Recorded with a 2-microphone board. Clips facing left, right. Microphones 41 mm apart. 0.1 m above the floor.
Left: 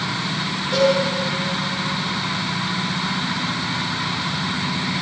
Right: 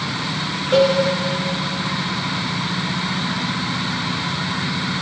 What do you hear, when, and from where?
0.7 s a cowbell: 50° right (ahead or behind), 8.5 m